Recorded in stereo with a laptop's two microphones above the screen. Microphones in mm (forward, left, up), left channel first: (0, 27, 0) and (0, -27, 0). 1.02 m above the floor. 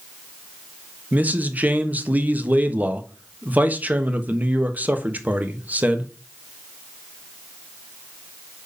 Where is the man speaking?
30° right (ahead or behind), 1.2 m.